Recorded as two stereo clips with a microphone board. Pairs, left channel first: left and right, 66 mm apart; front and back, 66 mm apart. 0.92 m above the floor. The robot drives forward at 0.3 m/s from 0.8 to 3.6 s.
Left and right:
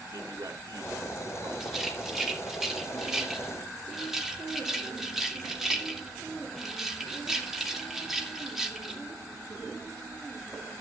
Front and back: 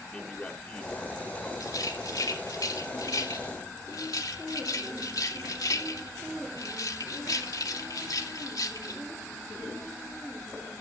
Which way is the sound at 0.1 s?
70° right.